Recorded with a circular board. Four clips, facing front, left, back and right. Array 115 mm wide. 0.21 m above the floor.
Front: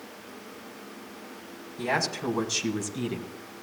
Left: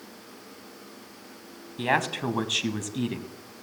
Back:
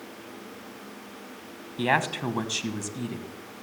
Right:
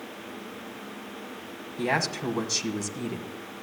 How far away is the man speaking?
About 1.2 m.